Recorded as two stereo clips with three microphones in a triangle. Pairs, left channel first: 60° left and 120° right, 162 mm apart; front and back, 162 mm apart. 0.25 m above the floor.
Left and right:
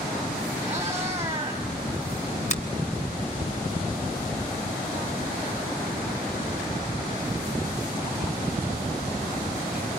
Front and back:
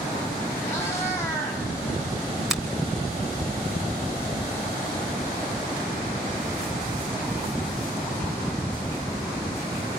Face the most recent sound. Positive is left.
turn(degrees=95)